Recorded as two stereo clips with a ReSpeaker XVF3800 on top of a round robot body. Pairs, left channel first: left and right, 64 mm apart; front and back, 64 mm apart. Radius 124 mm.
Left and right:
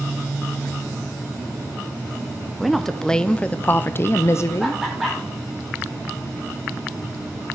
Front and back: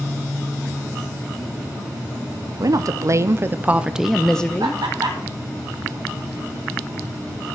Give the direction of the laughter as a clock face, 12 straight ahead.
6 o'clock.